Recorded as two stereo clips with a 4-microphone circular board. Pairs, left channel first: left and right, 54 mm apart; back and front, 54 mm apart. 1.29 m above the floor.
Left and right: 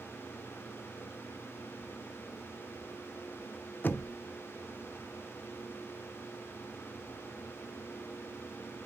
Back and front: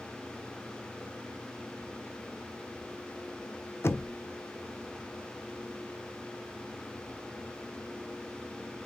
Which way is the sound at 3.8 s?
140° left.